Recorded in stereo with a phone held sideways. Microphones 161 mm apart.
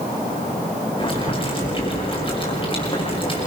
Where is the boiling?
35° left (ahead or behind), 6 m.